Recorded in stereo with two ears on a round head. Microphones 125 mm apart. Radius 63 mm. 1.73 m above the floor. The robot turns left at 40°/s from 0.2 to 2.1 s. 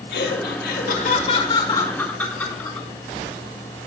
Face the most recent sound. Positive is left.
turn(degrees=10)